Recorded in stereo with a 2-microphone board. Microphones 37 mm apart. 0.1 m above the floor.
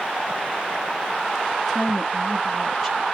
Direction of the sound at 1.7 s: 10° right (ahead or behind).